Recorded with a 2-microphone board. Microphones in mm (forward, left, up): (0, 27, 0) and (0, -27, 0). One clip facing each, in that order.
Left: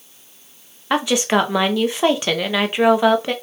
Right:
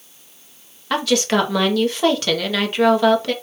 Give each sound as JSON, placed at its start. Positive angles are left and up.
{"t": 0.9, "sound": "a woman speaking", "side_deg": 20, "distance_m": 0.9}